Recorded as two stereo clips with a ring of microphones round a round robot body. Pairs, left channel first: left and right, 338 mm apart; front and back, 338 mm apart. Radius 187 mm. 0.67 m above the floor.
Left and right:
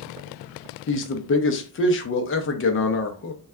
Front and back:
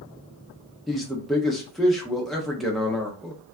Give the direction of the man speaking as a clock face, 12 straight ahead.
9 o'clock.